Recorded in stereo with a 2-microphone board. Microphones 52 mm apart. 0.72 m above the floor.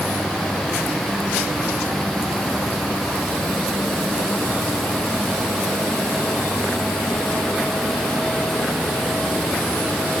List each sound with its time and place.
Only background noise.